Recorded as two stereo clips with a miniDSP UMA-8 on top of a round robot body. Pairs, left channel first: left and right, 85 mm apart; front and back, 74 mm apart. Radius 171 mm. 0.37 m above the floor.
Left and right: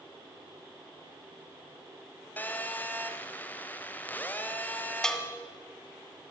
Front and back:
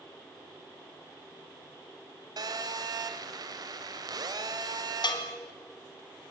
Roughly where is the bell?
Ahead.